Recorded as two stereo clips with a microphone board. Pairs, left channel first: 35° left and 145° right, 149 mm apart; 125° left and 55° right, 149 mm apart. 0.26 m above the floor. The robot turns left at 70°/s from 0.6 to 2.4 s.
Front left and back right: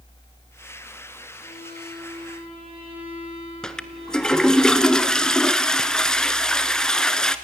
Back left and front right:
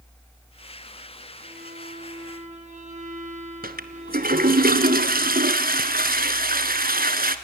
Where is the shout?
No shout in this recording.